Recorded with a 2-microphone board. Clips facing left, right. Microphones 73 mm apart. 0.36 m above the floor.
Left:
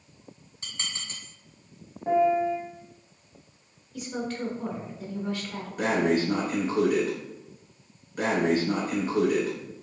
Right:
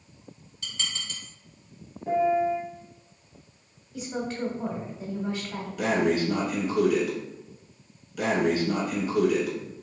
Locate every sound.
0.6 s dishes clattering: 35° left (ahead or behind), 1.9 m
2.1 s a piano: 45° left (ahead or behind), 1.1 m
3.9 s a woman speaking: 25° right (ahead or behind), 1.2 m
5.8 s breathing: 40° left (ahead or behind), 1.3 m